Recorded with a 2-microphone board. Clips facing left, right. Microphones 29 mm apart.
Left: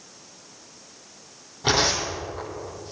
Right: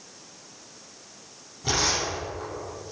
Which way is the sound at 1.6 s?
50° left (ahead or behind).